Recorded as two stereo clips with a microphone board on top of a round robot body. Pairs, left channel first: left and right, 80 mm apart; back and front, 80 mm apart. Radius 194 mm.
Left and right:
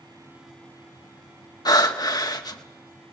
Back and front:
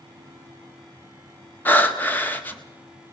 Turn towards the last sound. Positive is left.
turn(degrees=115)